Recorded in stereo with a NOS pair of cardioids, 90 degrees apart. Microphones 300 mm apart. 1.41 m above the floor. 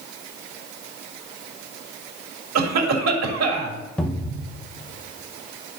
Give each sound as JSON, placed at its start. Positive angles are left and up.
{"t": 2.5, "sound": "a cough", "azimuth_deg": -60, "distance_m": 2.0}
{"t": 4.0, "sound": "a cupboard door", "azimuth_deg": 5, "distance_m": 1.0}